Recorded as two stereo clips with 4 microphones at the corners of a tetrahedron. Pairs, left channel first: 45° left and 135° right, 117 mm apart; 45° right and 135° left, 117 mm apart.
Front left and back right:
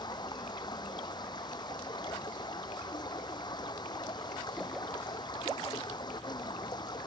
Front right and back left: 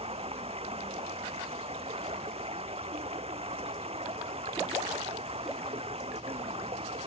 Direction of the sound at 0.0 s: 100° left.